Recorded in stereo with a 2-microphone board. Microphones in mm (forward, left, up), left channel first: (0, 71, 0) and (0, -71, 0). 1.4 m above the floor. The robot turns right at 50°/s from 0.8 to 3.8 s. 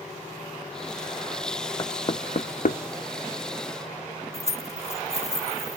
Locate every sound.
1.8 s knocking: 25° left (ahead or behind), 0.6 m; by 2.8 s 70° left (ahead or behind), 0.6 m
4.3 s keys jangling: 50° left (ahead or behind), 1.2 m